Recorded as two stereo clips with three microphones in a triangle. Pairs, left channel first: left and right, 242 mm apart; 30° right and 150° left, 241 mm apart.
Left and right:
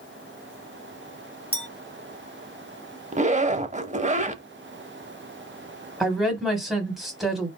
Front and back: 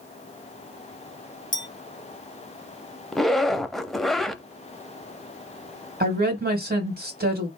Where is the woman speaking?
Straight behind, 1.4 m.